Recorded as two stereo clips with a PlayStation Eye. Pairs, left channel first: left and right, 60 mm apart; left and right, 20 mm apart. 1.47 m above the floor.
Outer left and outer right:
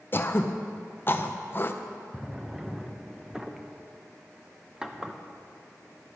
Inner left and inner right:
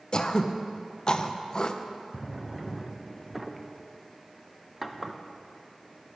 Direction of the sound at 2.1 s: 10° right (ahead or behind).